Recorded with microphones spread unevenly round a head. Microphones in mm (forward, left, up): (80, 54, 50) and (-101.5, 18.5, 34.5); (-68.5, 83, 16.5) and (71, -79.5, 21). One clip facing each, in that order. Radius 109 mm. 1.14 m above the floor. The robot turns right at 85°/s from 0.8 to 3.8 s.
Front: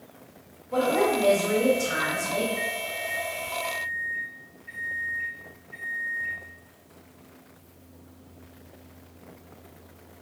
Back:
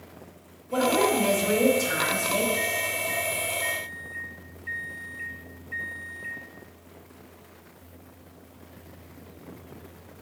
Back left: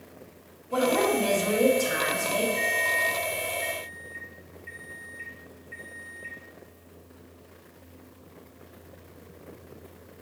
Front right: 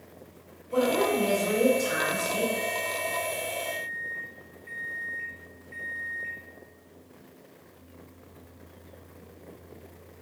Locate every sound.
0.7 s a woman speaking: 140° left, 1.9 m; by 2.5 s 75° right, 1.9 m
2.6 s a microwave: 95° left, 0.9 m; by 6.4 s 160° right, 0.9 m